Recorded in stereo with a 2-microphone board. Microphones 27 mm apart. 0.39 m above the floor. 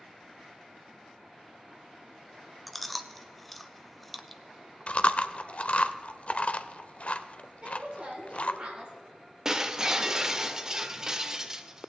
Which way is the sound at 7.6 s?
40° right (ahead or behind).